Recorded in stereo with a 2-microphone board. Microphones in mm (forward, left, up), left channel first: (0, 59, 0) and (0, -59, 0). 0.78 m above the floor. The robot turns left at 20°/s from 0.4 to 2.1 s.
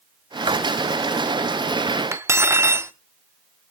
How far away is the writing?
About 0.8 m.